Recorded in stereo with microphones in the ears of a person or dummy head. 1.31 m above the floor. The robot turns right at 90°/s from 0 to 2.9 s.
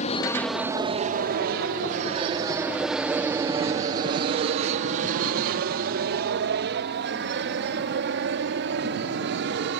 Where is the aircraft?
40° left (ahead or behind); by 9.8 s 60° right (ahead or behind).